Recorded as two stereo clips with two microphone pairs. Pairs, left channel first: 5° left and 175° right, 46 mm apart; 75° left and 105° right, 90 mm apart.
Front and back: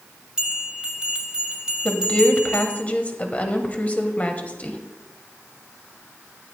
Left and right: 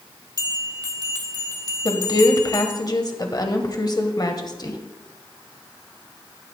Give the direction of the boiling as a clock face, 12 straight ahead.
I don't hear boiling.